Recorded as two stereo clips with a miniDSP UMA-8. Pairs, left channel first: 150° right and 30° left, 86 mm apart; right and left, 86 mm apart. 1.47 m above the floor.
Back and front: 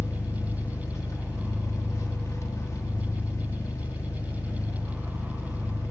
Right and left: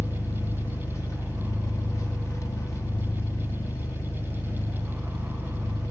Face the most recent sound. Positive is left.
turn(degrees=-120)